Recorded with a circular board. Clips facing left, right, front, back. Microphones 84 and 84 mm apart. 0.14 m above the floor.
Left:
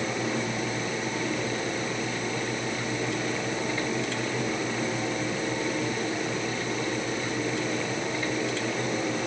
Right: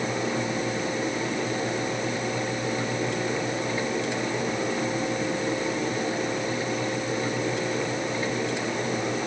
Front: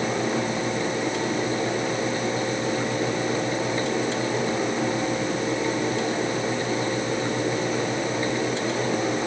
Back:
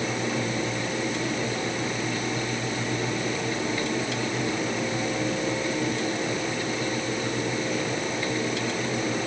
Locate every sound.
Only background noise.